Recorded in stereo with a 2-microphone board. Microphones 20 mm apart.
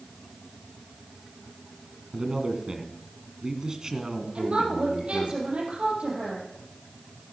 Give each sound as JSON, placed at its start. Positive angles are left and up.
{"t": 2.1, "sound": "a man speaking", "side_deg": -30, "distance_m": 1.9}
{"t": 4.3, "sound": "a woman speaking", "side_deg": -70, "distance_m": 5.5}